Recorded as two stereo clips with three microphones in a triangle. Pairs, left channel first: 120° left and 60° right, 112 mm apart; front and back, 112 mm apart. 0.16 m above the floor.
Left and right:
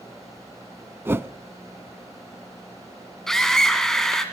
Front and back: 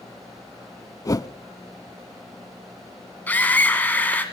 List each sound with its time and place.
1.1 s a whoosh: 10° right, 0.6 m
3.3 s a scream: 45° left, 1.7 m